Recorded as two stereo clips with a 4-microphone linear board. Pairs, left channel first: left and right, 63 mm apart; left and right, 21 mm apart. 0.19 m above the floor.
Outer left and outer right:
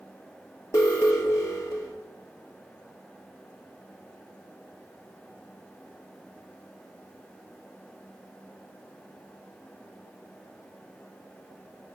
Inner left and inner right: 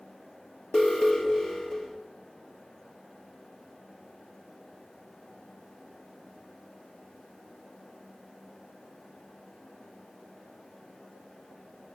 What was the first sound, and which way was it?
An alarm, 50° left (ahead or behind).